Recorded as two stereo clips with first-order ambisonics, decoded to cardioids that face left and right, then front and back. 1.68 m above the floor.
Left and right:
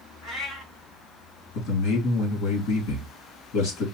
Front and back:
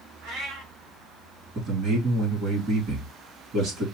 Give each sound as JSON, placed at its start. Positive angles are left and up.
{"t": 0.2, "sound": "a cat meowing", "azimuth_deg": 155, "distance_m": 2.5}
{"t": 1.6, "sound": "a man speaking", "azimuth_deg": 120, "distance_m": 2.5}